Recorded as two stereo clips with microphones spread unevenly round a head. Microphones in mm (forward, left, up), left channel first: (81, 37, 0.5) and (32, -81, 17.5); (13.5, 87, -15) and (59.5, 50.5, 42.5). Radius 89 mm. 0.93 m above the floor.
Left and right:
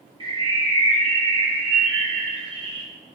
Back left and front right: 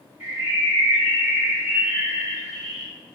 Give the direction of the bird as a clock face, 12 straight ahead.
2 o'clock.